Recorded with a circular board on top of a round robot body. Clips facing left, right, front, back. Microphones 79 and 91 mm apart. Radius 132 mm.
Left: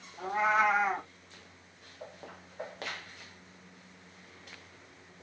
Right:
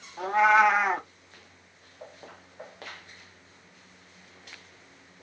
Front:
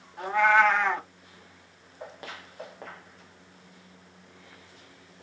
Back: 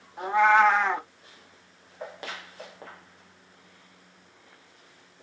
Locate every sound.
0.2 s a cat meowing: 110° right, 0.6 m